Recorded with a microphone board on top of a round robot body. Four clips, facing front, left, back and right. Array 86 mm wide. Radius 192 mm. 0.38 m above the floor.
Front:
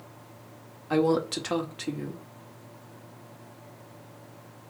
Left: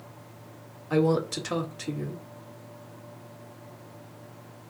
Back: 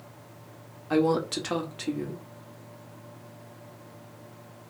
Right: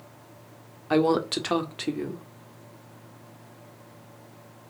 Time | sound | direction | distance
0.9 | a woman speaking | 90° right | 2 m